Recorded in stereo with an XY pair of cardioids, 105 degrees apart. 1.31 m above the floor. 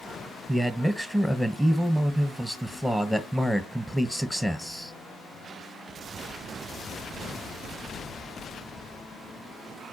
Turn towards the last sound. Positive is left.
turn(degrees=-10)